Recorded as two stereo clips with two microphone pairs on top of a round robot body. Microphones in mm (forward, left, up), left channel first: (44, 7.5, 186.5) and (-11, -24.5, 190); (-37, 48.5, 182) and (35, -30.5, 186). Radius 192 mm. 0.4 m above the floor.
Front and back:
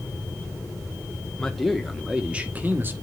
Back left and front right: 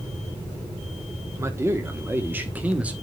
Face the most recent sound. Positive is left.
turn(degrees=-120)